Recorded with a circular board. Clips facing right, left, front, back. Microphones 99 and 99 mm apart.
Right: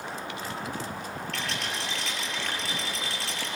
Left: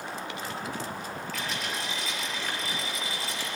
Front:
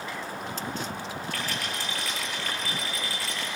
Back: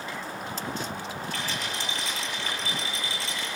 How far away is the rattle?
About 8.5 m.